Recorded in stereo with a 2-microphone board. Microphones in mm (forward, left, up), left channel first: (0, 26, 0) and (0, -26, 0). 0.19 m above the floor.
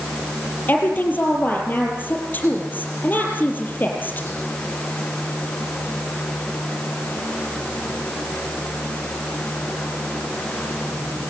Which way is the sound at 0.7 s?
35° left (ahead or behind).